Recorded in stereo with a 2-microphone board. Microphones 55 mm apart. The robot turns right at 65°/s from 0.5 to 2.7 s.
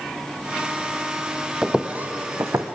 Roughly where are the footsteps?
Centre.